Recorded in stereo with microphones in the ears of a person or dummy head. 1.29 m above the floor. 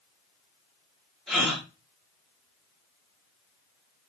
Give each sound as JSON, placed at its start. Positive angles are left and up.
{"t": 1.3, "sound": "a gasp", "side_deg": 0, "distance_m": 1.8}